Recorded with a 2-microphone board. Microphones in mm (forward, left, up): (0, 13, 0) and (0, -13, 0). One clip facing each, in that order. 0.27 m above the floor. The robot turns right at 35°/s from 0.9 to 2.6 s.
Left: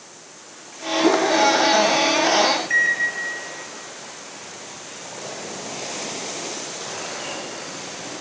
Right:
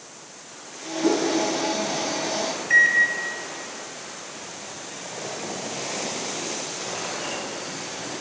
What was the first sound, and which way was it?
A whoosh, 30° left (ahead or behind).